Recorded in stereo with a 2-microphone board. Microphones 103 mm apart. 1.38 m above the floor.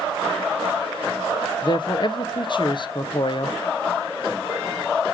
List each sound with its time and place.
1.6 s a man speaking: 50° left (ahead or behind), 0.5 m